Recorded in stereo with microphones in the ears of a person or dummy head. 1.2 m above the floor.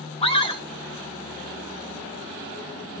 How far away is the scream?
About 1.7 m.